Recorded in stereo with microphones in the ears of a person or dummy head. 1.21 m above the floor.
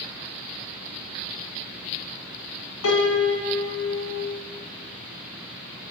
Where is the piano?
65° left (ahead or behind), 0.9 m.